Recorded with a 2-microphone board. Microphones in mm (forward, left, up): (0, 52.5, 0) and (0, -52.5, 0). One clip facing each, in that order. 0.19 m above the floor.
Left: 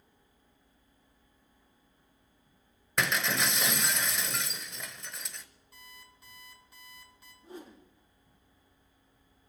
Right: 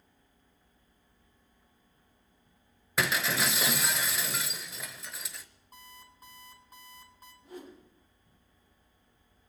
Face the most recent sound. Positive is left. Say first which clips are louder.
# right 1 dB
turn(degrees=25)  # may be behind; listen again after turning